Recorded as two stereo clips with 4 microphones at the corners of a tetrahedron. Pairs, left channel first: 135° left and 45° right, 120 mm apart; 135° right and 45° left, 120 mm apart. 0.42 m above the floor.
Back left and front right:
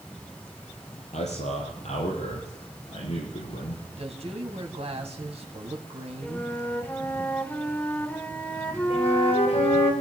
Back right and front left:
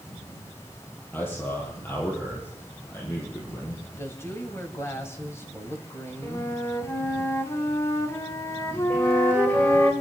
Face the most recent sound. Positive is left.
turn(degrees=150)